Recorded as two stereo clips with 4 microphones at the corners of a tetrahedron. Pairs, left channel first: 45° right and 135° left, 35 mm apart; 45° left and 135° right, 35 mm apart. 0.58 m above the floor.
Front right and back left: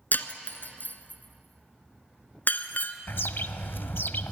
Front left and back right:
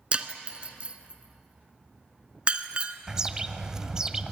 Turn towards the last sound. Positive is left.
turn(degrees=-65)